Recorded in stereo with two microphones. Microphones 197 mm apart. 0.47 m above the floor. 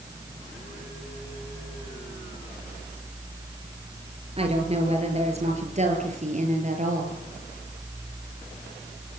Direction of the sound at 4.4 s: 30° right (ahead or behind).